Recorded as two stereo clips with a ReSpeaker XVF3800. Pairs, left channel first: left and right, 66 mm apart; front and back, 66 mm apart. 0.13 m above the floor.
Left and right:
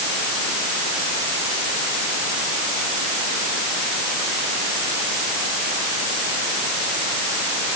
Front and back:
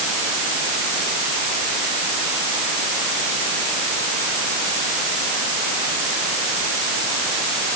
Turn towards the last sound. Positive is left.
No sound to turn to.